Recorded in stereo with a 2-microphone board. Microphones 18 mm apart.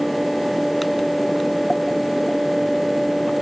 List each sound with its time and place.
Only background noise.